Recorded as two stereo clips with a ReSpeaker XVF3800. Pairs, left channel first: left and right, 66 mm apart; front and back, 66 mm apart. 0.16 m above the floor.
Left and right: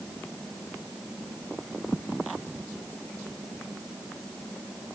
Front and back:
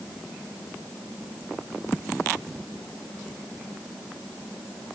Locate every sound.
Only background noise.